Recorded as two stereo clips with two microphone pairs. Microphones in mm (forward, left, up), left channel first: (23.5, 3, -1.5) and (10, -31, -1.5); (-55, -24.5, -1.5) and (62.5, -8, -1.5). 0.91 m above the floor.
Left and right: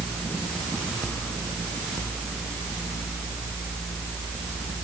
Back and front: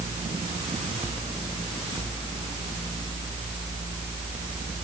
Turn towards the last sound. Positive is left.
No sound to turn to.